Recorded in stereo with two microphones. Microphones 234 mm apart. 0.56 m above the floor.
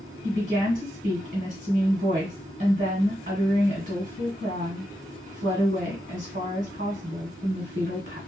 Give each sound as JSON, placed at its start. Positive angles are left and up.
{"t": 0.2, "sound": "a woman speaking", "side_deg": -50, "distance_m": 1.4}